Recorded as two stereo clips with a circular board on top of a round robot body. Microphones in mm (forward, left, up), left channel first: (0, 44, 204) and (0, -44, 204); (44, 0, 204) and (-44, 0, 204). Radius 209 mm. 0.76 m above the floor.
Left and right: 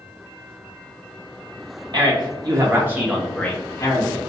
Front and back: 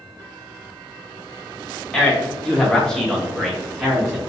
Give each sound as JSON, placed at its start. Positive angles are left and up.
{"t": 1.9, "sound": "a man speaking", "azimuth_deg": -80, "distance_m": 1.6}